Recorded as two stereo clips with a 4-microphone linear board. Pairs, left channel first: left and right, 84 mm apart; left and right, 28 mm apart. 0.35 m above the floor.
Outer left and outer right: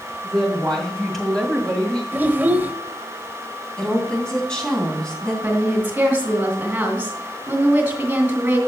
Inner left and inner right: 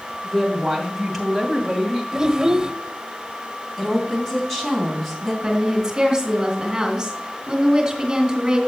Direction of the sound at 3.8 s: 10° left (ahead or behind).